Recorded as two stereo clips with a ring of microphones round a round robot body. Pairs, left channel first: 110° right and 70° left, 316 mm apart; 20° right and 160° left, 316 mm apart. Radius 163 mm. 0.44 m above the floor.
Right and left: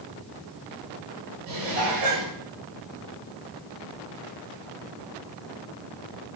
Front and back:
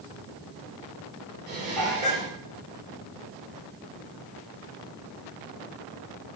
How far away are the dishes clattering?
About 7.5 m.